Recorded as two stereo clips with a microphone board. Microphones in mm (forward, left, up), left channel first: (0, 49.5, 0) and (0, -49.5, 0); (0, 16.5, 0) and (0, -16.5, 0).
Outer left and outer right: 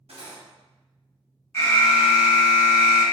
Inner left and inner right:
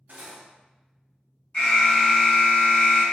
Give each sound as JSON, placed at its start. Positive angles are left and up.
{"t": 0.1, "sound": "cutlery clinking", "side_deg": -75, "distance_m": 0.7}
{"t": 1.5, "sound": "an alarm", "side_deg": 25, "distance_m": 0.9}